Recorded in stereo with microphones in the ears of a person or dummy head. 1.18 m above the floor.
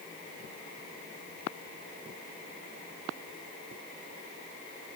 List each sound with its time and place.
Only background noise.